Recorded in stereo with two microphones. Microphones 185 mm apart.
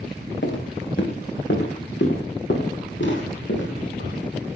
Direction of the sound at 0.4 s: 90° left.